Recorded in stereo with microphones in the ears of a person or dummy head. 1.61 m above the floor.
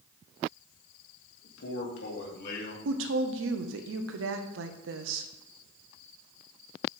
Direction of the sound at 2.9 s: 75° right (ahead or behind).